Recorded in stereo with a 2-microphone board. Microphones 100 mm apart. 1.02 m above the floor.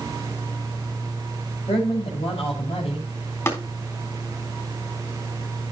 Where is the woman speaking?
80° left, 5.5 m.